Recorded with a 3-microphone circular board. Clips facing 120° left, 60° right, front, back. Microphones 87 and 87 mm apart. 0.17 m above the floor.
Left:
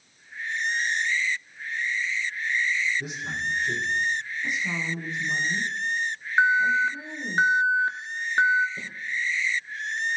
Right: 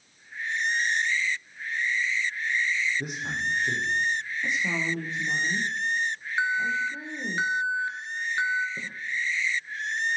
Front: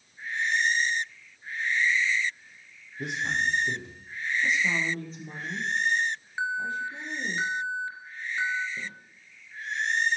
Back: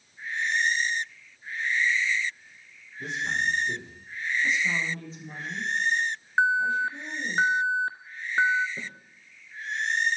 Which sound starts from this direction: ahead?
A man speaking, at 3.0 s.